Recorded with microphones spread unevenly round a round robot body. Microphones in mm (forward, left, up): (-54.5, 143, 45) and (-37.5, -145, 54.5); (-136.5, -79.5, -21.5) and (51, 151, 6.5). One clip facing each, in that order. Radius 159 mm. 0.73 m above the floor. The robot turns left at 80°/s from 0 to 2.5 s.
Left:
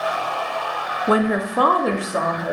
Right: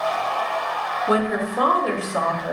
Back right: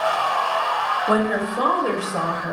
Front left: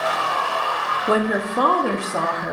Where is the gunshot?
No gunshot in this recording.